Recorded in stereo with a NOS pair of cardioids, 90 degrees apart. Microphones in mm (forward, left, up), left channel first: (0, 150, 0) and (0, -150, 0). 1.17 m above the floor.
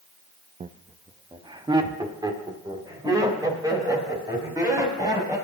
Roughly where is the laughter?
Ahead right.